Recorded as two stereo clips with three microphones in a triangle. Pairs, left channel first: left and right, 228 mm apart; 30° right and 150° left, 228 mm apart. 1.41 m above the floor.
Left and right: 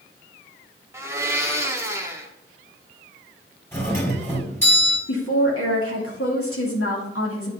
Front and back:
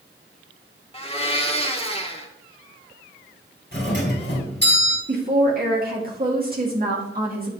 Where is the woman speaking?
100° left, 2 m.